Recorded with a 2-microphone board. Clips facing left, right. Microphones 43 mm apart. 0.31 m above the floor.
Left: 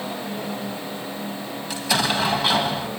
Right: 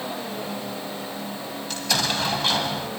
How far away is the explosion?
About 1.6 m.